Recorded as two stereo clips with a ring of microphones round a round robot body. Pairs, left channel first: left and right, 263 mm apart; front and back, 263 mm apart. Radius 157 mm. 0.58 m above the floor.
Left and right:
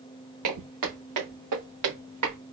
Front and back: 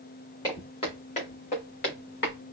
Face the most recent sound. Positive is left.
turn(degrees=-55)